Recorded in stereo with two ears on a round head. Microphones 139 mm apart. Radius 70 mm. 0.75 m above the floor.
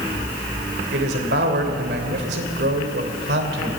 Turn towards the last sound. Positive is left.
turn(degrees=-80)